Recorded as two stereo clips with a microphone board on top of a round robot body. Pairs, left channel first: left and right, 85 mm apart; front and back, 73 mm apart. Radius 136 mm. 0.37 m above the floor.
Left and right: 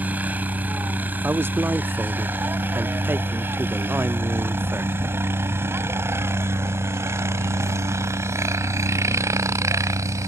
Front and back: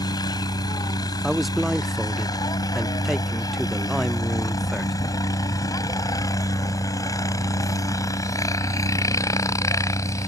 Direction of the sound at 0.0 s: 20° right.